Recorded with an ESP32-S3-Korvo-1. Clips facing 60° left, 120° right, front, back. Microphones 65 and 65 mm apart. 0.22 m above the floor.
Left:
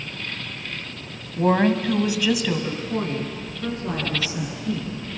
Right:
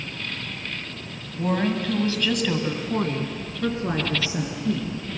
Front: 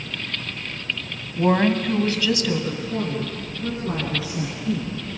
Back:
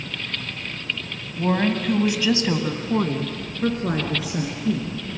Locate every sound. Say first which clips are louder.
1.4 s a woman speaking: left 5 dB, front 3 dB; 50° left, 1.7 m; by 5.0 s 175° right, 4.5 m